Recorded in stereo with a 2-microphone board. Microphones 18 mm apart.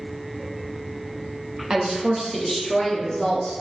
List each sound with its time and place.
1.7 s a woman speaking: 35° right (ahead or behind), 0.7 m; by 3.5 s 35° left (ahead or behind), 1.4 m